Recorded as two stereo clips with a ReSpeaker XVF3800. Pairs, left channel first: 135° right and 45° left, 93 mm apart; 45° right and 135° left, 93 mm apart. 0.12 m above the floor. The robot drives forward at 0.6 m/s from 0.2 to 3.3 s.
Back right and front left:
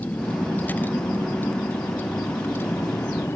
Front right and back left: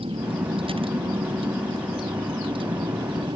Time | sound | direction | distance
0.0 | a vehicle | 150° left | ?